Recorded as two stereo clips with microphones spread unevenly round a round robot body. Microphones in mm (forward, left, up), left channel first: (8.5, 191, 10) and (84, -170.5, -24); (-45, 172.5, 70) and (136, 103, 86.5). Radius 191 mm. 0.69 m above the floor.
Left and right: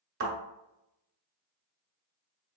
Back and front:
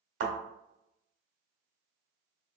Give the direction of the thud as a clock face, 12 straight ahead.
1 o'clock.